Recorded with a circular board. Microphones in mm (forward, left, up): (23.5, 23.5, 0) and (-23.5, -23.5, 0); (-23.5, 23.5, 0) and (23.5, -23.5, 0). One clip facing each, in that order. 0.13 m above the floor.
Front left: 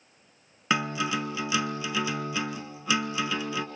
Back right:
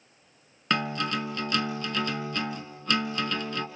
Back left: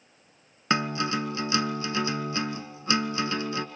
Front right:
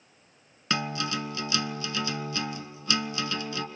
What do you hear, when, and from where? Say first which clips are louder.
0.7 s a guitar: front left 1 dB, back left 4 dB; 120° left, 1.3 m